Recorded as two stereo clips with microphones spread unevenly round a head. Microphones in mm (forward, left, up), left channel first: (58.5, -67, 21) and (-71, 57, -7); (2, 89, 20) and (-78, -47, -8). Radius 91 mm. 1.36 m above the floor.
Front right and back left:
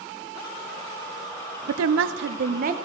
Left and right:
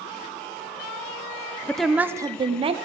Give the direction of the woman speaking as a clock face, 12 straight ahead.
7 o'clock.